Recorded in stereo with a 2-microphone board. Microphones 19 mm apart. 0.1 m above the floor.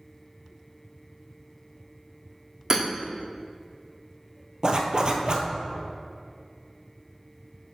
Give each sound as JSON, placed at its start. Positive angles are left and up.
{"t": 2.7, "sound": "hammering", "side_deg": -30, "distance_m": 2.0}
{"t": 4.6, "sound": "a zipper", "side_deg": -45, "distance_m": 1.0}